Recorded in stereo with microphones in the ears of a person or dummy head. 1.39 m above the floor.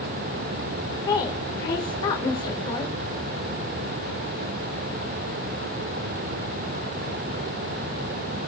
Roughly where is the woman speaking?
Left.